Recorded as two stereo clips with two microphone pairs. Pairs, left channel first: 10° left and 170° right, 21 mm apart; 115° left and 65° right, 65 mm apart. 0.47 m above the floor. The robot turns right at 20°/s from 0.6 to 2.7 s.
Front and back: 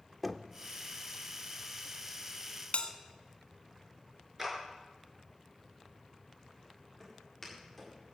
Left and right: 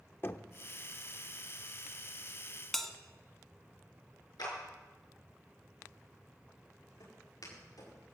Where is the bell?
35° left, 1.3 m.